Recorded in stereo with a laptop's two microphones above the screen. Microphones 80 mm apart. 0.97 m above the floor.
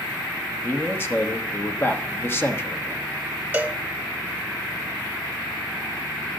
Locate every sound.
0.6 s a man speaking: 30° left (ahead or behind), 1.1 m
3.5 s a cowbell: 25° right (ahead or behind), 0.8 m